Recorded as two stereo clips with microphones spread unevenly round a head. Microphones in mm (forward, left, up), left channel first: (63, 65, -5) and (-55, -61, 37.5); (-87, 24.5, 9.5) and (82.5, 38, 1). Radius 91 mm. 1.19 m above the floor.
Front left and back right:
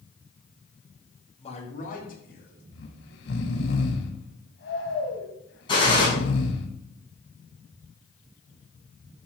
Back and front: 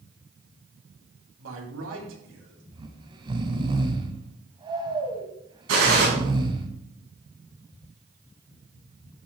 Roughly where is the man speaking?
Ahead.